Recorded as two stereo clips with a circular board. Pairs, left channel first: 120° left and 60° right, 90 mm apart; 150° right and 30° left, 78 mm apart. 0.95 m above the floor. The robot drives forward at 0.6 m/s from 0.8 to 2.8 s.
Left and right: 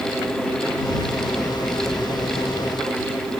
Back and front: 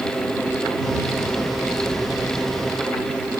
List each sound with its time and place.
Only background noise.